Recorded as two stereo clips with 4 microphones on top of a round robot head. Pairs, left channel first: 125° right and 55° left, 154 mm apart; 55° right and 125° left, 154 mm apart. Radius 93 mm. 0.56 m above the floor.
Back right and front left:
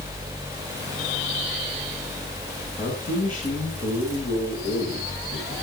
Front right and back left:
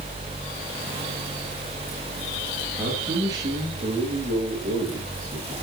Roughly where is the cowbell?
I don't hear a cowbell.